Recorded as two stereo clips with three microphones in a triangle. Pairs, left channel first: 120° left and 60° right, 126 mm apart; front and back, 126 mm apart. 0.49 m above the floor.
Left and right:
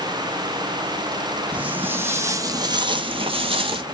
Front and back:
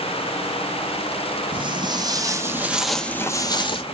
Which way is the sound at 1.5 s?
140° right.